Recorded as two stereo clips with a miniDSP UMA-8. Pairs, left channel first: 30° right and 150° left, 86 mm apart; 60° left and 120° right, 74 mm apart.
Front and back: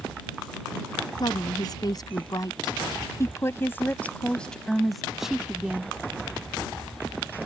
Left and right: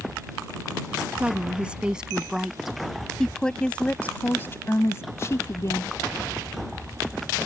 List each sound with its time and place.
1.2 s a woman speaking: 50° right; by 5.9 s 80° left